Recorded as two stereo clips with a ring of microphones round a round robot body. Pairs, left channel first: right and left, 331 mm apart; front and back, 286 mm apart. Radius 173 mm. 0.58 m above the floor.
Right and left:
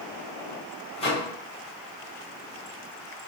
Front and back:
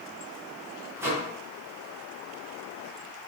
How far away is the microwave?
About 0.8 m.